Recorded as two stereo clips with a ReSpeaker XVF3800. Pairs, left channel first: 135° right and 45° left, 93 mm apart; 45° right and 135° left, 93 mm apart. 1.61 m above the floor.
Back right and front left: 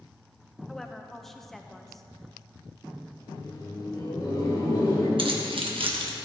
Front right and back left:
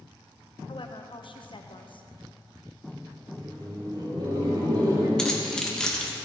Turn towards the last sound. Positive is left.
turn(degrees=35)